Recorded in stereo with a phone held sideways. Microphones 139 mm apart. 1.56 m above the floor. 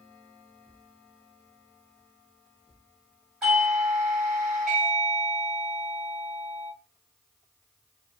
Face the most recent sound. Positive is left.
turn(degrees=-5)  # may be behind; listen again after turning